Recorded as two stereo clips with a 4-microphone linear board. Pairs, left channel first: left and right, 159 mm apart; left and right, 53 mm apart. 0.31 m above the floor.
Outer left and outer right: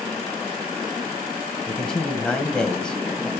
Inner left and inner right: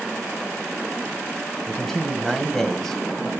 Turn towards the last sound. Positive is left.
turn(degrees=5)  # may be behind; listen again after turning